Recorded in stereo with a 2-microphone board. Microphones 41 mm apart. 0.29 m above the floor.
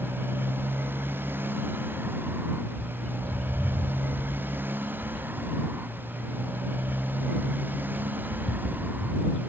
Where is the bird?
20° left (ahead or behind).